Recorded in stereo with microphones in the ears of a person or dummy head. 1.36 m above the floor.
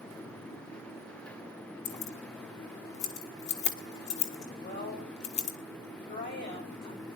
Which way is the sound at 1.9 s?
30° left (ahead or behind).